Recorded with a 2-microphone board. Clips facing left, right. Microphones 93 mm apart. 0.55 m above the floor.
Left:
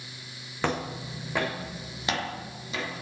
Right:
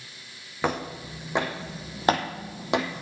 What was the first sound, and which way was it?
Footsteps, 10° right (ahead or behind).